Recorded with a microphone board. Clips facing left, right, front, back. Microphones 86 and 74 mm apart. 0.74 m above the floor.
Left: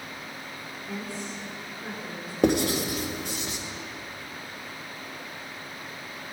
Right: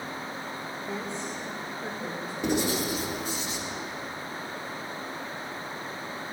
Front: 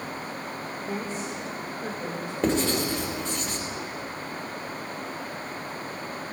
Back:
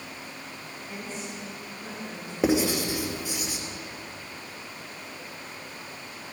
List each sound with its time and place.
0.9 s a woman speaking: 30° right, 1.8 m
2.4 s writing: 100° left, 2.5 m